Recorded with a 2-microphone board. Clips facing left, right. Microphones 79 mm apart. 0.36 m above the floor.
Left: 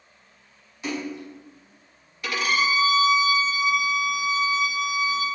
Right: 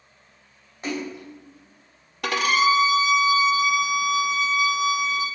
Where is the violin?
70° right (ahead or behind), 0.6 m.